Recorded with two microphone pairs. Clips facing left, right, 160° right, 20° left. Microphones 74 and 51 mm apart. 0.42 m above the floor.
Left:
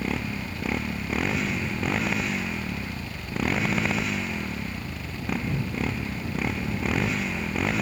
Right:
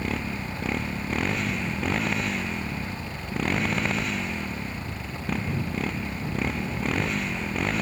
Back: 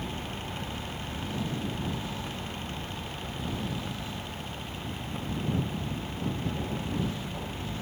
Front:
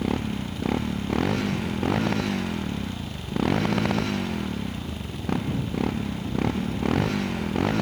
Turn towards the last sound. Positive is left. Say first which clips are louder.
# even, front 9 dB
turn(degrees=0)